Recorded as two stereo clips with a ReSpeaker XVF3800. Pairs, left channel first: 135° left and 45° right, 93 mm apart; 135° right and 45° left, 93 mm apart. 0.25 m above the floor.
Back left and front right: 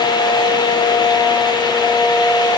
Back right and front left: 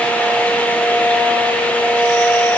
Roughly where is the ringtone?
No ringtone in this recording.